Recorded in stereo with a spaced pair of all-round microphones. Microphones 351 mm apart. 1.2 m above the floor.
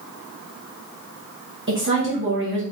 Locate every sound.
1.7 s a woman speaking: 35° right (ahead or behind), 1.1 m